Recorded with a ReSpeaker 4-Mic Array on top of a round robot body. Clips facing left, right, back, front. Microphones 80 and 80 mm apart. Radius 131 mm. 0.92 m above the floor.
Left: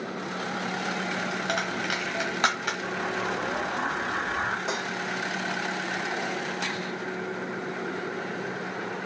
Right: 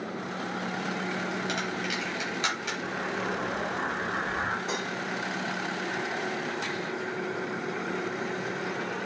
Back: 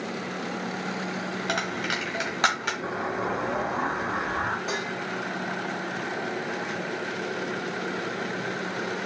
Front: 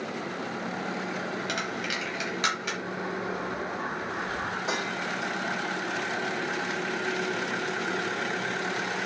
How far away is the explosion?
About 1.3 m.